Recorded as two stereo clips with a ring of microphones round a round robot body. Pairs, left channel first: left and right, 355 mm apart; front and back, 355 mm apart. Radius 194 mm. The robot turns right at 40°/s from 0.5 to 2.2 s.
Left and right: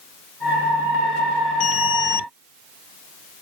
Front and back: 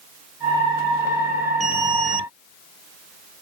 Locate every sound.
1.6 s an alarm: 105° left; by 2.3 s 130° left